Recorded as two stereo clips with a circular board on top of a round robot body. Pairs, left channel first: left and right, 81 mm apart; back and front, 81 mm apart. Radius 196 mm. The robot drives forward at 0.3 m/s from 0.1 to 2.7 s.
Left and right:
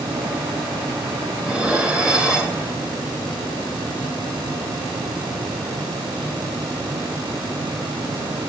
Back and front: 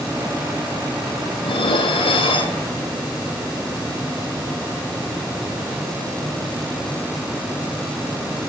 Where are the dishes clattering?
170° right, 1.1 m.